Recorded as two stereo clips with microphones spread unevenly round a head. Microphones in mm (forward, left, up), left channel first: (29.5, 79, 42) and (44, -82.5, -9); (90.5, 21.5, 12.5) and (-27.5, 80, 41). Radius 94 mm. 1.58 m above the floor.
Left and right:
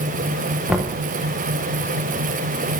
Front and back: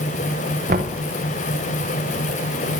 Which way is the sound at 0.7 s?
175° right.